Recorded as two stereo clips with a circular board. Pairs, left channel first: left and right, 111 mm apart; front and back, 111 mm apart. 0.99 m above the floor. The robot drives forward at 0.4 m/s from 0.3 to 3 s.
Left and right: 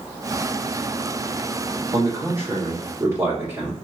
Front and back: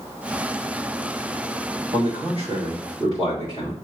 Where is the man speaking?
135° right, 2 m; by 3.8 s 145° right, 2.5 m.